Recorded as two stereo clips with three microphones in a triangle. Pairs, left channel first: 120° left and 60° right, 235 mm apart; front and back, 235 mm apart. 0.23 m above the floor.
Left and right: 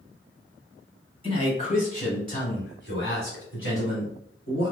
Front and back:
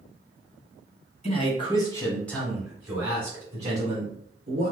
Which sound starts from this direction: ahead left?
A man speaking, at 1.2 s.